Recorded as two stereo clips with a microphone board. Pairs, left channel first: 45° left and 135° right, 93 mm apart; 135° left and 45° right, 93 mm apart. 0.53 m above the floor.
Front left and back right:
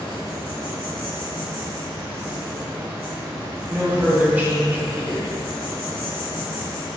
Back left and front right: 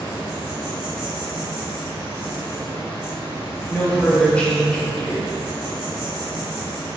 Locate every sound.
0.0 s an insect: straight behind, 1.7 m
3.7 s a woman speaking: 170° right, 0.6 m